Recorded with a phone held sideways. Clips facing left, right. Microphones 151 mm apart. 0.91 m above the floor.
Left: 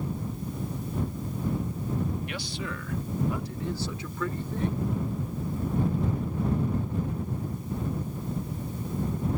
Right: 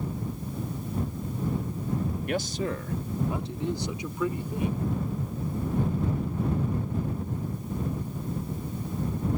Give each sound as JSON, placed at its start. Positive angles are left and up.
{"t": 2.3, "sound": "a man speaking", "side_deg": -50}